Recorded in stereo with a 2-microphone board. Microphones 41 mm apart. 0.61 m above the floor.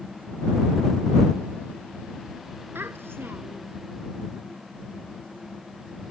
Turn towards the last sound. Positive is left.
turn(degrees=-70)  # may be behind; listen again after turning